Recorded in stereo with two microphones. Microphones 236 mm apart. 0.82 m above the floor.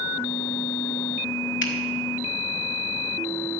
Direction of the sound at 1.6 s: 55° left (ahead or behind).